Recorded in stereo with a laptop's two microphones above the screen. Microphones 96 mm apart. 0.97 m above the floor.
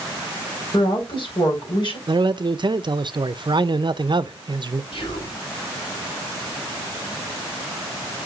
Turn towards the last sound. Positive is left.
turn(degrees=75)  # may be behind; listen again after turning